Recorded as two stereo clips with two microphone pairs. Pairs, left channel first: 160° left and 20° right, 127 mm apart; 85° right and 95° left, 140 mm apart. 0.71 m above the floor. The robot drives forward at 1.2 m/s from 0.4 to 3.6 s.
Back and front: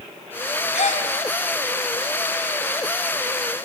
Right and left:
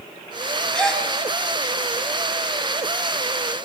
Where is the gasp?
170° right, 4 m.